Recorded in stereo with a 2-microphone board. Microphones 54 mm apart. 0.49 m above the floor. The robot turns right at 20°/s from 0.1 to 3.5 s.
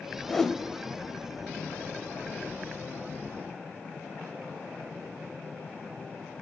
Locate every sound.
0.3 s a whoosh: 15° left (ahead or behind), 0.7 m; by 0.6 s 10° left (ahead or behind), 0.7 m